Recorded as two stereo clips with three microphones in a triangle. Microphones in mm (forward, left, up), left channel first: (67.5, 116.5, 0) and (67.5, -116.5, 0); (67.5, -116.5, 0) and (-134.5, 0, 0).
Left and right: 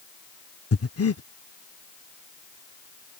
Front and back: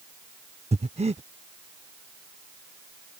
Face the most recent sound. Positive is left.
turn(degrees=90)